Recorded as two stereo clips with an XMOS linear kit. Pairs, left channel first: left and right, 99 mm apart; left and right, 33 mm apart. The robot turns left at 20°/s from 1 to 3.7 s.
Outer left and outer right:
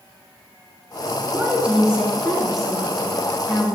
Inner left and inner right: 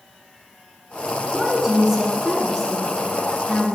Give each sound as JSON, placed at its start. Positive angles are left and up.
{"t": 1.3, "sound": "a woman speaking", "azimuth_deg": -150, "distance_m": 1.7}